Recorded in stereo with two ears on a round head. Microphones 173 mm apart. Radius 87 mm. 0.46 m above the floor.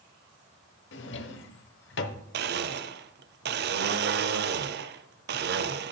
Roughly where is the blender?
Right.